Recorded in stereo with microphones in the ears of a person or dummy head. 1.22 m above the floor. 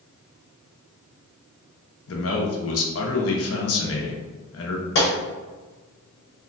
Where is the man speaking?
65° left (ahead or behind), 0.6 m.